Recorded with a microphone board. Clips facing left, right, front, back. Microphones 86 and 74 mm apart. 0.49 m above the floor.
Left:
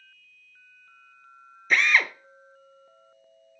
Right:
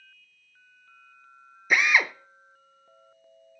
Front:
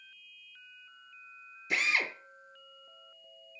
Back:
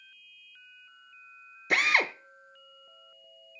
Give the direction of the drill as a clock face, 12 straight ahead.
6 o'clock.